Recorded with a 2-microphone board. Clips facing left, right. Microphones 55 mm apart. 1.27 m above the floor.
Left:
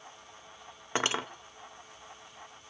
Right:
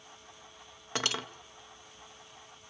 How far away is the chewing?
I don't hear chewing.